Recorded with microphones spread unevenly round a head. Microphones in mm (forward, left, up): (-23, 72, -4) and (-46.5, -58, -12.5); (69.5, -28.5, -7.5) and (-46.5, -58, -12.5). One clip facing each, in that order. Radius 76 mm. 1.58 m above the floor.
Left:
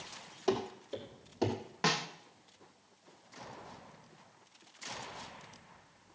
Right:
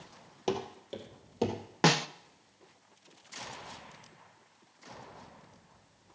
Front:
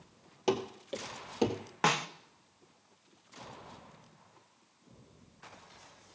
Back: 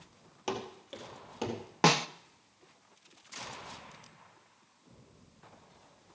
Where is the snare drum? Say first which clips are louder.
Right 7 dB, back 4 dB; 115° right, 0.5 m.